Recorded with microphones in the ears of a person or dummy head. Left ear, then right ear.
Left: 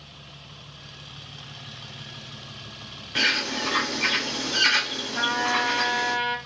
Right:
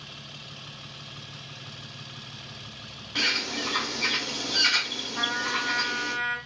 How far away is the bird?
About 1.0 m.